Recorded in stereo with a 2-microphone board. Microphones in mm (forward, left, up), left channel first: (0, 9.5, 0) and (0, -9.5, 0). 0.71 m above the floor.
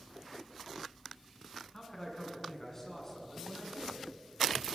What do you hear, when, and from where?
1.7 s a man speaking: 20° left (ahead or behind), 7.5 m; by 4.1 s 10° left (ahead or behind), 7.5 m